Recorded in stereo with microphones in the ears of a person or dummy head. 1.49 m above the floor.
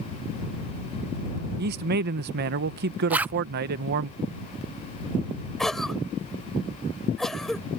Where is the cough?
Centre (ahead or behind).